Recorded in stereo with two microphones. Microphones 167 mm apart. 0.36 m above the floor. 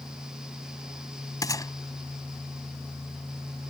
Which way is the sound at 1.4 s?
20° left (ahead or behind).